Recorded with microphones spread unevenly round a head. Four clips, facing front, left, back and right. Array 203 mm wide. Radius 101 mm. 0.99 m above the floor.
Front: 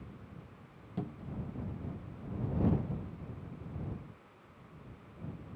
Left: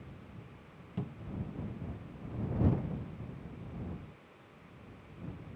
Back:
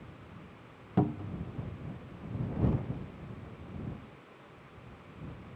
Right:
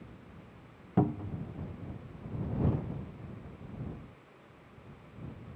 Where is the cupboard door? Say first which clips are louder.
Right 11 dB, back 10 dB; 125° right.